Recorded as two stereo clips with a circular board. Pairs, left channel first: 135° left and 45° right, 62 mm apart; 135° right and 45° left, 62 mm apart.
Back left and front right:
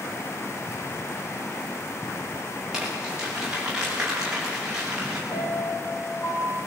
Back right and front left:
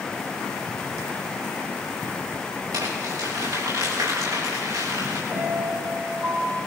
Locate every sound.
2.7 s crumpling: 35° left, 9.5 m
5.3 s a piano: 90° left, 7 m